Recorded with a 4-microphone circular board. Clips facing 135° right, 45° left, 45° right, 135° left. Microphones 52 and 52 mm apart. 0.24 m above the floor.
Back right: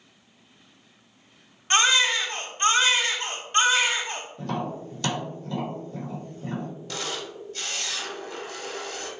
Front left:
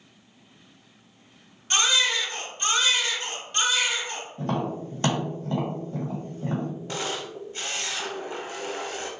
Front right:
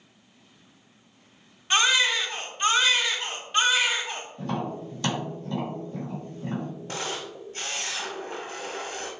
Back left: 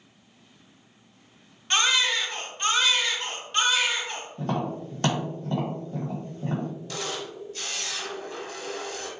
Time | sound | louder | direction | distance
1.7 | a baby crying | back right 3 dB, front right 1 dB | 125° right | 0.6 m
4.4 | tapping | front left 4 dB, back left 2 dB | 95° left | 2.0 m
6.9 | a camera shutter | front left 2 dB, even | 5° right | 0.7 m